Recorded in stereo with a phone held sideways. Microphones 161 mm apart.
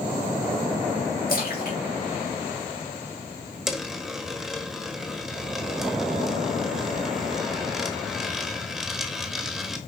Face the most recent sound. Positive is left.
turn(degrees=0)  # may be behind; listen again after turning